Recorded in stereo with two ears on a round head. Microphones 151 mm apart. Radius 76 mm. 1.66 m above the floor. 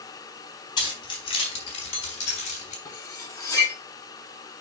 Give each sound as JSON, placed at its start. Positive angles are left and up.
{"t": 0.8, "sound": "keys jangling", "side_deg": 30, "distance_m": 4.0}
{"t": 2.9, "sound": "cutlery clinking", "side_deg": 20, "distance_m": 1.7}